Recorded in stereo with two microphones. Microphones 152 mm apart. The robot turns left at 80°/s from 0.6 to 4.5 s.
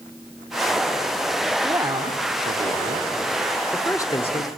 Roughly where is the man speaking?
Centre.